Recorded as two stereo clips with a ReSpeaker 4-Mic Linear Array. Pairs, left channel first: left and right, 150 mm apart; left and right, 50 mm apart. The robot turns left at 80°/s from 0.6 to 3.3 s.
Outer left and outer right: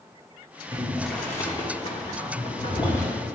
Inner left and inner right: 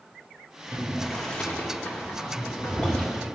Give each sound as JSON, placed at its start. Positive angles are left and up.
{"t": 0.7, "sound": "boiling", "side_deg": -20, "distance_m": 1.2}